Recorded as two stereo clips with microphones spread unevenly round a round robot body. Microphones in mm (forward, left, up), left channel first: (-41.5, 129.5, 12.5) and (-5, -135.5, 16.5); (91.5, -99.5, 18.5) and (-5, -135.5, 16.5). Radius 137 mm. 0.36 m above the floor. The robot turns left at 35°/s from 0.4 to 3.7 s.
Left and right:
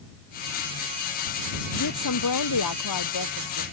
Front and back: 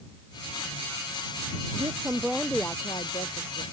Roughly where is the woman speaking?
Behind left.